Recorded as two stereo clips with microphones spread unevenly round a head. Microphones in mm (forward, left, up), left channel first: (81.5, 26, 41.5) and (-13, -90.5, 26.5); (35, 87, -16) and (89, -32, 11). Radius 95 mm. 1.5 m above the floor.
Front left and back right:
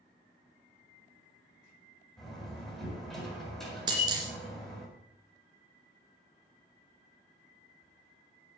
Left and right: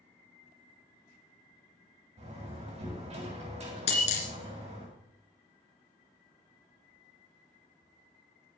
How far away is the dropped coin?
About 2.5 m.